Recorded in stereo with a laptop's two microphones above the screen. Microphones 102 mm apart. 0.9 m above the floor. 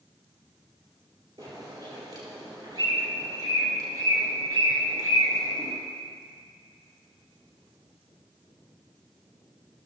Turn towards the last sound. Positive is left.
turn(degrees=-50)  # may be behind; listen again after turning